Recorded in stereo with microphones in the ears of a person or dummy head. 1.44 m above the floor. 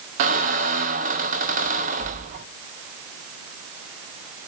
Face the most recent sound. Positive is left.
turn(degrees=-45)  # may be behind; listen again after turning